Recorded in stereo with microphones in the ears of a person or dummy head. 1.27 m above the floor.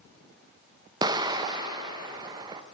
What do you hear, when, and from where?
1.0 s an explosion: 25° right (ahead or behind), 0.6 m